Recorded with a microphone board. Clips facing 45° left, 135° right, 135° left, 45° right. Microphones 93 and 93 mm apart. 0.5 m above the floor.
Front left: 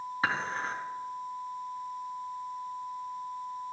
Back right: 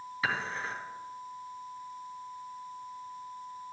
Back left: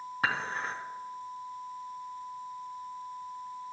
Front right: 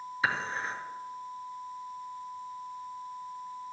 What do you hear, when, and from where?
0.2 s dishes clattering: 100° left, 3 m